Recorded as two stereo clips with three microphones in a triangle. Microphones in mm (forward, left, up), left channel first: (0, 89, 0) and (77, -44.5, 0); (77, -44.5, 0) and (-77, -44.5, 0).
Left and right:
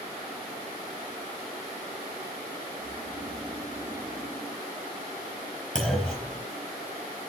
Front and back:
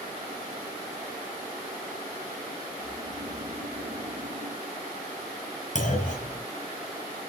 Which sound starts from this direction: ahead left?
A clunk, at 5.8 s.